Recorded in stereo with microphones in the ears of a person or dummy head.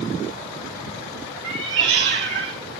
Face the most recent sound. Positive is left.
turn(degrees=-65)  # may be behind; listen again after turning